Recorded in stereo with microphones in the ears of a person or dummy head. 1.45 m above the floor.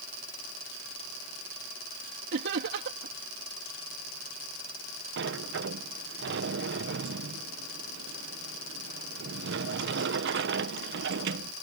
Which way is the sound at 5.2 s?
60° right (ahead or behind).